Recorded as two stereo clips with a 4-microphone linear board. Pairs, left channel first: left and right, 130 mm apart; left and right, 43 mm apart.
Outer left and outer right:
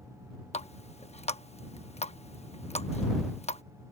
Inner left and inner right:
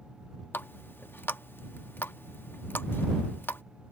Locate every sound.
0.5 s a running tap: 55° left (ahead or behind)